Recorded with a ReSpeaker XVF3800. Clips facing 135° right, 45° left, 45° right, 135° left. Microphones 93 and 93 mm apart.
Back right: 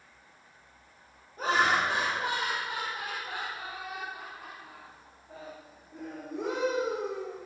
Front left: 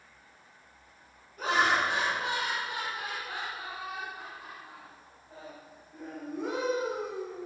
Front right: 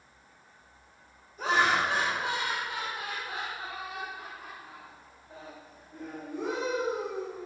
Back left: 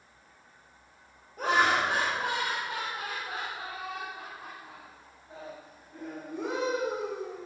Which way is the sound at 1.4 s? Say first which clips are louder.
Back right 1 dB, back left 1 dB; 165° left.